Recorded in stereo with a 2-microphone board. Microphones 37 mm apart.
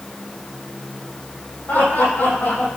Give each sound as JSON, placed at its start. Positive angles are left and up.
{"t": 1.7, "sound": "laughter", "side_deg": 65, "distance_m": 5.5}